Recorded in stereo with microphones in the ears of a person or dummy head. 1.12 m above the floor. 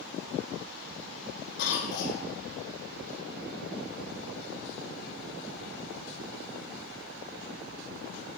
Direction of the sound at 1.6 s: 65° left (ahead or behind).